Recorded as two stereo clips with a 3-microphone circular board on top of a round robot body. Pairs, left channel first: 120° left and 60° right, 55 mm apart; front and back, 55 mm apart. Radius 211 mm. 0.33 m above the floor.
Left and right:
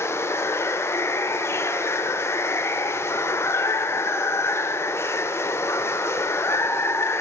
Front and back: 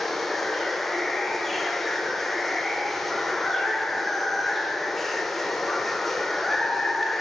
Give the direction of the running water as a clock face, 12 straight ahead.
9 o'clock.